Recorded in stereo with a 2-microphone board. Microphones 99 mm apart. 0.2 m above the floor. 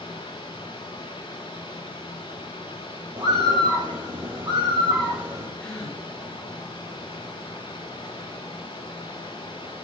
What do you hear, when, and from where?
0.0 s running water: 55° left (ahead or behind), 4.5 m
3.2 s a bird: 55° right (ahead or behind), 3 m
5.6 s a gasp: 15° left (ahead or behind), 7.5 m